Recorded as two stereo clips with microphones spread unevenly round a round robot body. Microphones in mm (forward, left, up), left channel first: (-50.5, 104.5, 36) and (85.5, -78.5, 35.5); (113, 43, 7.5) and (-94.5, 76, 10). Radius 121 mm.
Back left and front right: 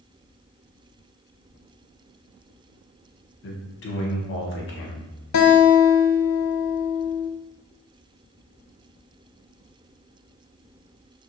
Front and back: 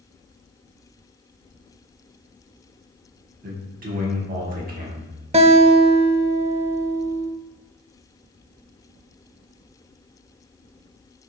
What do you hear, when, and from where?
3.4 s a man speaking: 135° left, 1.1 m
5.3 s a guitar: 110° left, 0.6 m